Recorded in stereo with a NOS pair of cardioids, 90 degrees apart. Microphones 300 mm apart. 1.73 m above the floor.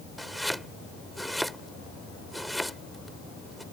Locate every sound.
0.2 s chopping: straight ahead